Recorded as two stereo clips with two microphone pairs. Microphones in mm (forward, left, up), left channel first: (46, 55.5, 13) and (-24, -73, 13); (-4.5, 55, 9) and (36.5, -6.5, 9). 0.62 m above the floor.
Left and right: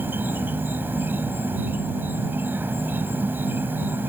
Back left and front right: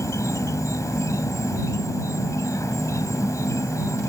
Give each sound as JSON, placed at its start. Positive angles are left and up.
{"t": 0.0, "sound": "an insect", "azimuth_deg": 165}